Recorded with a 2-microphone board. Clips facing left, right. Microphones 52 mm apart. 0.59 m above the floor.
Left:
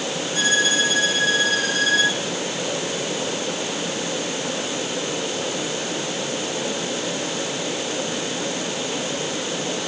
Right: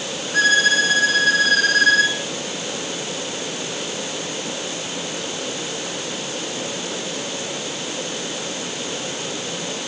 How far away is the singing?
No singing in this recording.